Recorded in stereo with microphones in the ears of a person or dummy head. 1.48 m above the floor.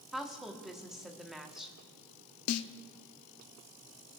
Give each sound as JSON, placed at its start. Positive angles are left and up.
{"t": 0.1, "sound": "a woman speaking", "side_deg": -5, "distance_m": 1.0}
{"t": 2.5, "sound": "a snare drum", "side_deg": 80, "distance_m": 0.5}